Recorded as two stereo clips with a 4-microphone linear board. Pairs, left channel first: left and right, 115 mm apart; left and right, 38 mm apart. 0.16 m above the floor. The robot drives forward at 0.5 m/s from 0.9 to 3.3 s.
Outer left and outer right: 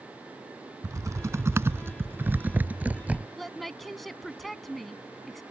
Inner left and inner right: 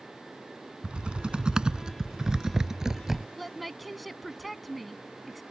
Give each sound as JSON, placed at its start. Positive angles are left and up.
{"t": 0.8, "sound": "typing on a keyboard", "side_deg": -30}
{"t": 3.4, "sound": "a woman speaking", "side_deg": 0}